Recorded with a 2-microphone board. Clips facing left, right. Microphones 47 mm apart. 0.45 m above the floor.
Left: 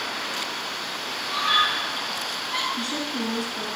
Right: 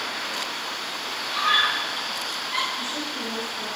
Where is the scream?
15° right (ahead or behind), 8 m.